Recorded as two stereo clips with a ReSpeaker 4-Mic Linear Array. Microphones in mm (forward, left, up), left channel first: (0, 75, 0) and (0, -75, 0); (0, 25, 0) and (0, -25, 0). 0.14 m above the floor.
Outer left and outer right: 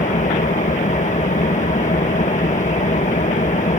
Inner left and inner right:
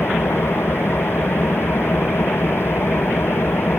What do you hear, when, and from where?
0.0 s an engine running: 55° left (ahead or behind)